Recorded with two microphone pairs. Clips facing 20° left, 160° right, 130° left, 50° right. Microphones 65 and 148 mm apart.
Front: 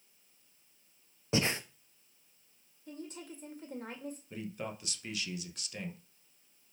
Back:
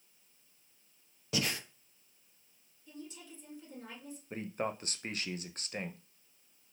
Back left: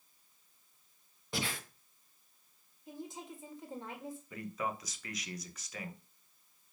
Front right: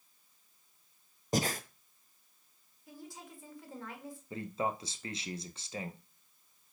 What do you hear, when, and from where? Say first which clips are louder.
1.3 s breathing: front 4 dB, front right 7 dB; 25° right, 0.7 m
2.9 s a woman speaking: front 4 dB, back left 4 dB; 65° left, 1.8 m
4.3 s a man speaking: back 7 dB, front right 4 dB; 110° right, 0.8 m